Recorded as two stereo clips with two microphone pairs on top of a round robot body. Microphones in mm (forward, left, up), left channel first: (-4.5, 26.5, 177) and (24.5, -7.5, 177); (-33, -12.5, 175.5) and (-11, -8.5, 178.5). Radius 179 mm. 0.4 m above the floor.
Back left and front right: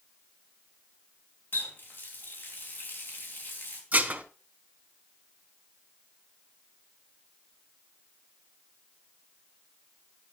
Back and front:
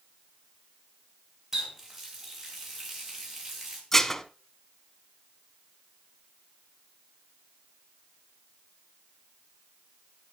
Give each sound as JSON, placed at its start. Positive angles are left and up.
{"t": 1.5, "sound": "a running tap", "azimuth_deg": 90, "distance_m": 3.0}
{"t": 3.9, "sound": "dishes clattering", "azimuth_deg": -100, "distance_m": 1.3}